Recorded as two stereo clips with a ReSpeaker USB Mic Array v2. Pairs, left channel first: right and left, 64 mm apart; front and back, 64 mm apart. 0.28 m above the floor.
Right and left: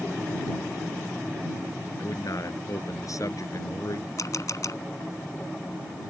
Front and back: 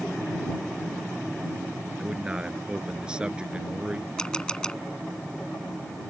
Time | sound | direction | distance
2.0 | a man speaking | 105° right | ?
4.2 | a camera shutter | 75° right | ?